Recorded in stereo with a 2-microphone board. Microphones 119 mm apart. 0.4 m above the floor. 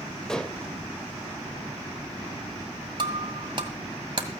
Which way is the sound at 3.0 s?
40° right (ahead or behind).